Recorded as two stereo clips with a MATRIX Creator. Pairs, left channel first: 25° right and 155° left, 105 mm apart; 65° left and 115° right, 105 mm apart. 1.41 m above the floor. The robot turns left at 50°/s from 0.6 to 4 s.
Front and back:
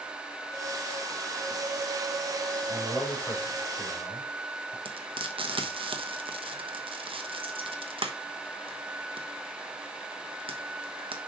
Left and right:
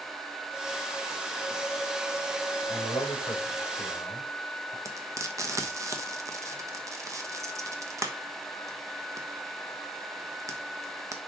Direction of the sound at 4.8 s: 170° right.